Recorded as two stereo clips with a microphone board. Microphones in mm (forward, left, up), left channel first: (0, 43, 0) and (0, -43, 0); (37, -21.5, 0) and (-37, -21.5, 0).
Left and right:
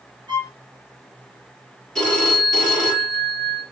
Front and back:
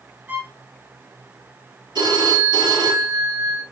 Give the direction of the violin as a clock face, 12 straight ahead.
4 o'clock.